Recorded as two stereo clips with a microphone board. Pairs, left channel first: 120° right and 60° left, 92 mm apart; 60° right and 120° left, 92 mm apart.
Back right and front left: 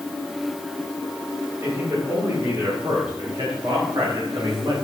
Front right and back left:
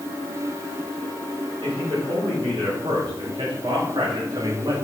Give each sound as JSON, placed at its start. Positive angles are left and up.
{"t": 1.6, "sound": "a man speaking", "azimuth_deg": 105, "distance_m": 4.5}